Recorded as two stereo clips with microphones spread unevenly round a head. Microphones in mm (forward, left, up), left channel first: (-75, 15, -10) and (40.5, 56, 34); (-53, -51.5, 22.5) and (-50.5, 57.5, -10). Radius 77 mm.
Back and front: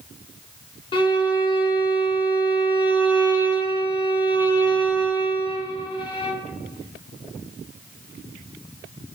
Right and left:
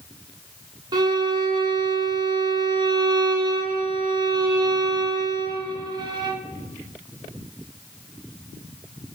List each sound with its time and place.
0.9 s a violin: 145° left, 0.6 m